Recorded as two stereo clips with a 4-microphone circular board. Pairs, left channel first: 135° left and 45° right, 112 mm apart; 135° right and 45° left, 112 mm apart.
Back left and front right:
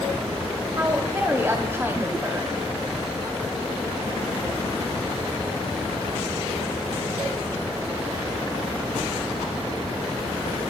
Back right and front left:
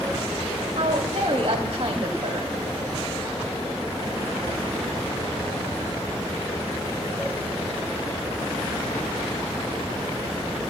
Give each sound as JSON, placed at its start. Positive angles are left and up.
{"t": 0.8, "sound": "a woman speaking", "azimuth_deg": 20, "distance_m": 3.0}